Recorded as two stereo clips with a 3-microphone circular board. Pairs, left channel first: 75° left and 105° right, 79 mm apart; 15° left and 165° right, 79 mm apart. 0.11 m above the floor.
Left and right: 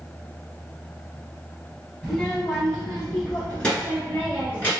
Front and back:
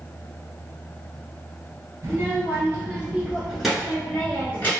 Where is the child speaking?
160° left, 1.5 m; by 4.7 s 40° left, 1.2 m.